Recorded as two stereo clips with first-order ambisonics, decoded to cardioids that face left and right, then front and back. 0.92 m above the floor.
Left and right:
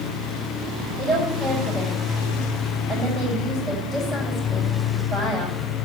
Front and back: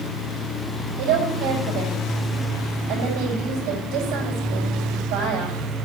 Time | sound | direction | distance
1.0 | a woman speaking | 160° right | 6.5 m